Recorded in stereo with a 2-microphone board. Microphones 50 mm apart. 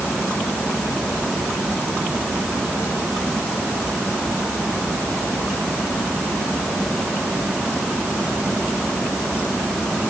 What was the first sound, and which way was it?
Only background noise.